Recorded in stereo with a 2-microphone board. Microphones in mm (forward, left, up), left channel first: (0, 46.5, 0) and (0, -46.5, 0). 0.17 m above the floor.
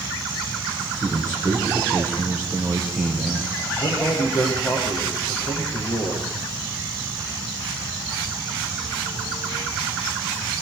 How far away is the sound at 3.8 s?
About 7.5 m.